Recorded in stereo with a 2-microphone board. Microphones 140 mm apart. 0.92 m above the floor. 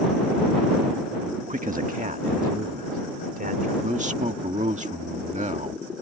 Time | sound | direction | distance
1.5 | a man speaking | 60° right (ahead or behind) | ?
3.8 | a man speaking | 60° right (ahead or behind) | ?